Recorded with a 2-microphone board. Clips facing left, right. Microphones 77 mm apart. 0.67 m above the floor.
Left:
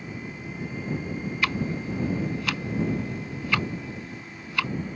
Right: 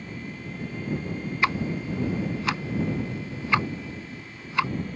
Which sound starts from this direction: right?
Ticking, at 1.4 s.